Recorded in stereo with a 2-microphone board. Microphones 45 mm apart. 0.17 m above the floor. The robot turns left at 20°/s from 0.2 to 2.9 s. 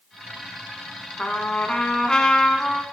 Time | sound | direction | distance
1.2 | a trumpet | 50° left | 0.7 m